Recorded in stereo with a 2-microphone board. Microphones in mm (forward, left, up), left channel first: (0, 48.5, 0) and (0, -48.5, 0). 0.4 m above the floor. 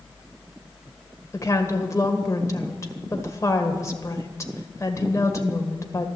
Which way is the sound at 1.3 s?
30° left (ahead or behind).